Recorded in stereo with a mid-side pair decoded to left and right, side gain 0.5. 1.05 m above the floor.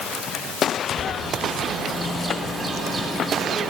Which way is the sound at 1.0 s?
15° right.